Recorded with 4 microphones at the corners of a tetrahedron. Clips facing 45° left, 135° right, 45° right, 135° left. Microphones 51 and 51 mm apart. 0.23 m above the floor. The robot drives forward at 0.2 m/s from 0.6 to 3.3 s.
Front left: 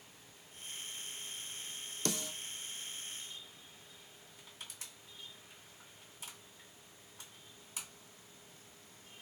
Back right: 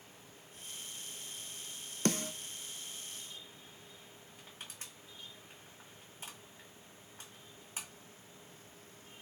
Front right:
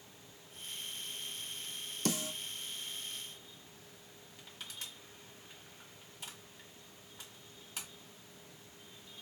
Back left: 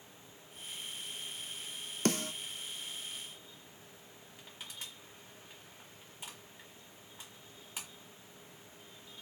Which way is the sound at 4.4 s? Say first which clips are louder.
Back right 1 dB, even; 155° right.